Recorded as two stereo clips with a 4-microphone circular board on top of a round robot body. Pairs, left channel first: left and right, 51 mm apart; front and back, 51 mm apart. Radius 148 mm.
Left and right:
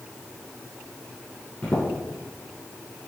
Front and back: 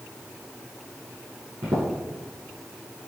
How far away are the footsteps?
About 1.3 m.